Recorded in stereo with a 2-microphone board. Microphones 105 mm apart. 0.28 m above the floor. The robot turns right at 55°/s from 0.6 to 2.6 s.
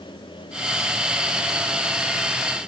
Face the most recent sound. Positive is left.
No sound to turn to.